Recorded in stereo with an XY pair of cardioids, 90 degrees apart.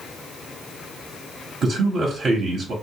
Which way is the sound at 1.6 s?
60° right.